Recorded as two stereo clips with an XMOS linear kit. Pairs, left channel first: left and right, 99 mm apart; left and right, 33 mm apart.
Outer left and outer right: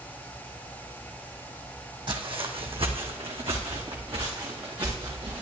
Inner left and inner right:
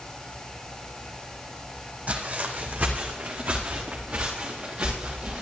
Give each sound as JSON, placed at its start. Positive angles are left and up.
{"t": 2.1, "sound": "footsteps", "side_deg": -55, "distance_m": 1.9}